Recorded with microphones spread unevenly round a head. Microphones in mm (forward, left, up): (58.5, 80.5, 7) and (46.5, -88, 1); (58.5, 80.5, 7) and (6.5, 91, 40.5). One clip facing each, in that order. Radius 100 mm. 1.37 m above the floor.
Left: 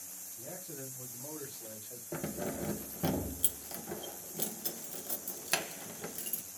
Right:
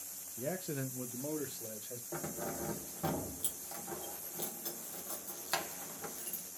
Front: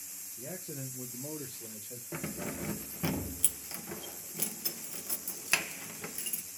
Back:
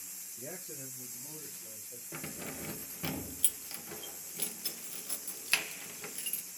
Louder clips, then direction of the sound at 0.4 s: Right 8 dB, front 3 dB; 130° right.